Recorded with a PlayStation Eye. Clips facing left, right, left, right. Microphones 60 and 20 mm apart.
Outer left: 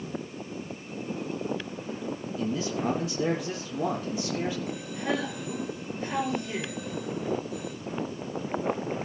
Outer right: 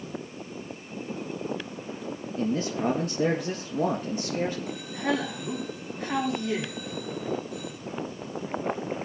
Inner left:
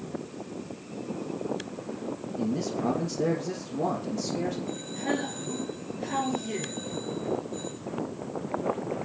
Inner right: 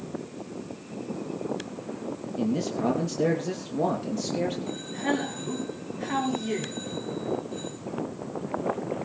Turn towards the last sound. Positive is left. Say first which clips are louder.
# outer right 2 dB, inner right 2 dB
turn(degrees=-75)  # may be behind; listen again after turning